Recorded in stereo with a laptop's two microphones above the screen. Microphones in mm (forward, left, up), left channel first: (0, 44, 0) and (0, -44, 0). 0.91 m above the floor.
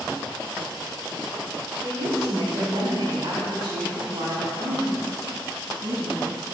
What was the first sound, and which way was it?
A woman speaking, 50° right (ahead or behind).